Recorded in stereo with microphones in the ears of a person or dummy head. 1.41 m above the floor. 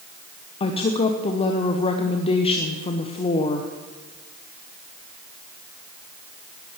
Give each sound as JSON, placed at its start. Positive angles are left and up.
{"t": 0.6, "sound": "a woman speaking", "side_deg": 25, "distance_m": 0.9}